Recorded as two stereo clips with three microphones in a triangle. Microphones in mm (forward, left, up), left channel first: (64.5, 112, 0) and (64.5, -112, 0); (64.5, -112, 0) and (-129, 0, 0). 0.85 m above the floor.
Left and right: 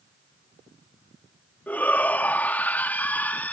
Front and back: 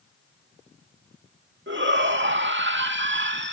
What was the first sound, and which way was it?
A shout, 170° left.